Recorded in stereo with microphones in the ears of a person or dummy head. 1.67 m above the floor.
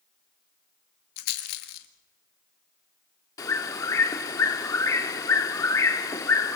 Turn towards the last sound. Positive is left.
turn(degrees=20)  # may be behind; listen again after turning